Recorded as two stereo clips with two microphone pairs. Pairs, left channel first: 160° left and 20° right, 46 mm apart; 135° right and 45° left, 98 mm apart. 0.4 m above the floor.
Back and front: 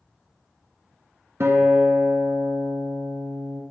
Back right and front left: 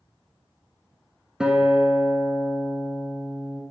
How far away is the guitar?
About 0.8 m.